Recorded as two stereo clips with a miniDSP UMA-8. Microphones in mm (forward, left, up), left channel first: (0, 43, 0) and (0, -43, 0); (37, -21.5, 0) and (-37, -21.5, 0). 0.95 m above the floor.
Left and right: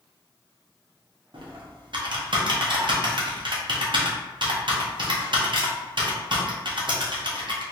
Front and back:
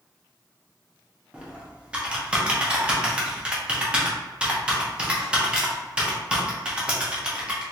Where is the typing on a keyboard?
105° right, 0.7 m.